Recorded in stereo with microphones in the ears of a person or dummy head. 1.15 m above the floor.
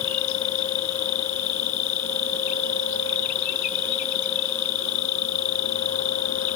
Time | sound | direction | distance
0.0 | an insect | 85° left | ?